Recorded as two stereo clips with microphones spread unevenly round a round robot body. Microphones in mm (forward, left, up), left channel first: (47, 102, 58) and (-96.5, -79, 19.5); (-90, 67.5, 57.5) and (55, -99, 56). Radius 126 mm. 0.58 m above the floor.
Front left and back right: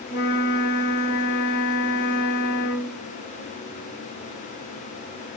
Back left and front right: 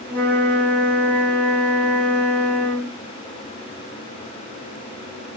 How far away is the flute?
About 1.3 m.